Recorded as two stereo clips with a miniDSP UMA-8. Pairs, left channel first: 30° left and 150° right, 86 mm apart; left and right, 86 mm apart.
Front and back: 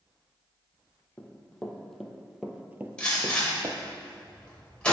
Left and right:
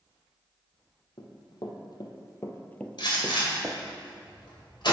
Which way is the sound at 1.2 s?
100° left.